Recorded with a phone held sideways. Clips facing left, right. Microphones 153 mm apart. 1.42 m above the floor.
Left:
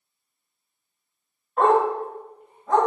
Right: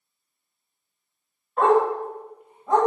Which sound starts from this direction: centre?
A dog barking, at 1.6 s.